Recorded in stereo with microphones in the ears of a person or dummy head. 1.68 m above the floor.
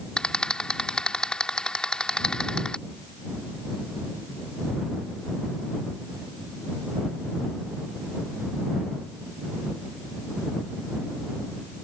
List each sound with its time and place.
0.2 s a rattle: 5° left (ahead or behind)